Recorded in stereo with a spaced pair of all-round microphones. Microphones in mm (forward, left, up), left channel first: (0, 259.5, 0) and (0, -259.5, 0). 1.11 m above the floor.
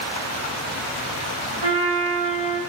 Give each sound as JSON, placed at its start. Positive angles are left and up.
{"t": 1.6, "sound": "a trumpet", "side_deg": -75, "distance_m": 3.5}